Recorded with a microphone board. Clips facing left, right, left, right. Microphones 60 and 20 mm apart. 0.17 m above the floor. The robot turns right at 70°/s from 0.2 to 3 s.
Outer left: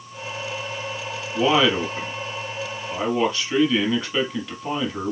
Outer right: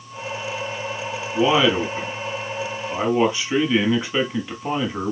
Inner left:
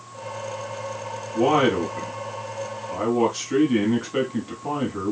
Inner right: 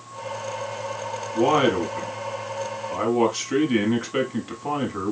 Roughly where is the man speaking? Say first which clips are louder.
Outer right 1 dB, even; centre.